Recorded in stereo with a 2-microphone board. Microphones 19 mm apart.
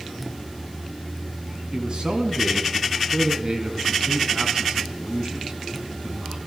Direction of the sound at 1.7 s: 40° right (ahead or behind).